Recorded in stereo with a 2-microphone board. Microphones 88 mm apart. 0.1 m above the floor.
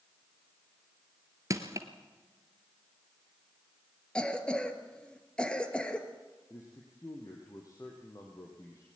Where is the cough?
10° left (ahead or behind), 2 m.